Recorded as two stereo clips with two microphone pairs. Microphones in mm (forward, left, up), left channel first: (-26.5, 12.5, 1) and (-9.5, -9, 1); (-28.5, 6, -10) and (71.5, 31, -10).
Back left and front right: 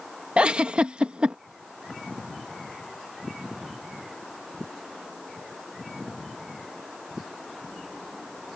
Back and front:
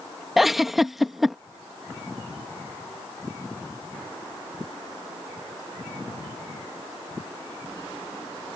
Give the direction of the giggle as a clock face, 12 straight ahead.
2 o'clock.